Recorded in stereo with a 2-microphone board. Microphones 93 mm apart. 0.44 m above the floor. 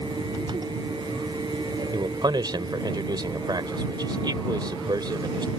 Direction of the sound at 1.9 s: 55° right (ahead or behind).